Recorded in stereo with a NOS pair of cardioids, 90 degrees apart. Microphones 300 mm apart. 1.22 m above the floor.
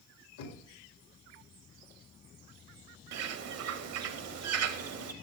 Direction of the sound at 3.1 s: 60° right.